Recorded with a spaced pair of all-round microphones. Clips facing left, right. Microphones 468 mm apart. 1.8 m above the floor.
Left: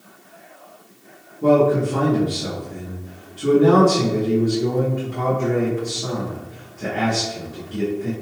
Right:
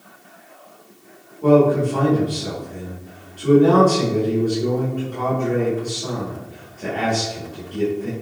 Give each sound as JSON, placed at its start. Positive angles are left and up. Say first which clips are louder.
{"t": 1.4, "sound": "a man speaking", "louder": "right 2 dB", "side_deg": 40, "distance_m": 3.0}